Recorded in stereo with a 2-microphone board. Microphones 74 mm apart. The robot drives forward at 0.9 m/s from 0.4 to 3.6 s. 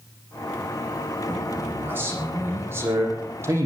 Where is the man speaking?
25° right (ahead or behind), 7 m; by 3.7 s 35° right (ahead or behind), 5 m.